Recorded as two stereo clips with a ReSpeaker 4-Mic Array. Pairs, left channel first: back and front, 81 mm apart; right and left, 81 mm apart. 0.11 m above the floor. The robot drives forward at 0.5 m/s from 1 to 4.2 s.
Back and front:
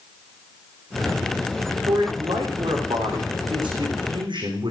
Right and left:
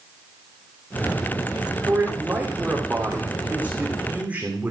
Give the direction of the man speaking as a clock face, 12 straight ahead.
12 o'clock.